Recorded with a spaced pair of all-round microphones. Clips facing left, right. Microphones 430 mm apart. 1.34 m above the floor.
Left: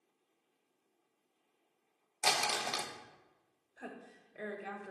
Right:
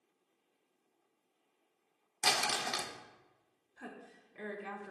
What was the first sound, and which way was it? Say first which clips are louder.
Crumpling: even; 35° right (ahead or behind).